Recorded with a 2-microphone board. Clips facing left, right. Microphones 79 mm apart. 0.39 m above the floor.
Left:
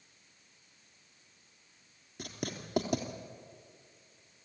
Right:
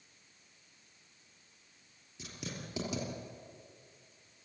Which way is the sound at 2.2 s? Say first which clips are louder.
Left 5 dB; 55° left (ahead or behind).